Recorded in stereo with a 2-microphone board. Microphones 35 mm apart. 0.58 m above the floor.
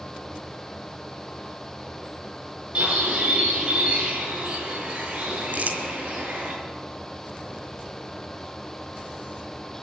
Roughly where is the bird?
Right.